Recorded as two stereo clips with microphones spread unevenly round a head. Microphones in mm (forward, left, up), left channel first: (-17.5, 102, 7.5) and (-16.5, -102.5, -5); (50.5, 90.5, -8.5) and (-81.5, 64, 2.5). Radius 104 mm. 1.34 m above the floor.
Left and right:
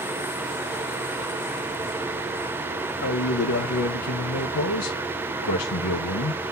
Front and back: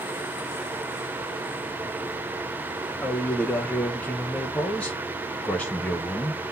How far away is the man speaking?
About 1.1 m.